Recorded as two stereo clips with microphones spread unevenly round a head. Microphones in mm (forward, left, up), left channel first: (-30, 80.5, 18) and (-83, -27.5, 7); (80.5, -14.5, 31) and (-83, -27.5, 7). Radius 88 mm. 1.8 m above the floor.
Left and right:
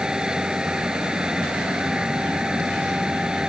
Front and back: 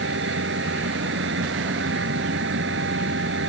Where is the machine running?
160° left.